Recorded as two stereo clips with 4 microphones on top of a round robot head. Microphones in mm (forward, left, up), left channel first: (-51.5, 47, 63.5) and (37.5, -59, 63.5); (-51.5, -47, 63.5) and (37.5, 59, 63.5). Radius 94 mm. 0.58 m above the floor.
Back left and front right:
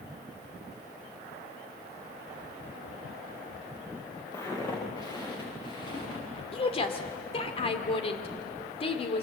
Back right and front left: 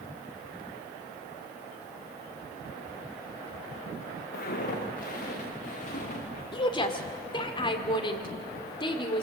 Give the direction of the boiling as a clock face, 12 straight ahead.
No boiling in this recording.